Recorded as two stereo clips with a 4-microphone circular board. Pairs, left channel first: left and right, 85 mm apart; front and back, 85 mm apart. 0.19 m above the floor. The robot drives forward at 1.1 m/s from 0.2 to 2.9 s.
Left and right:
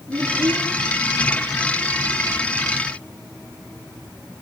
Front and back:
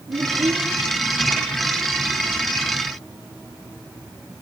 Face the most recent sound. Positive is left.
turn(degrees=-150)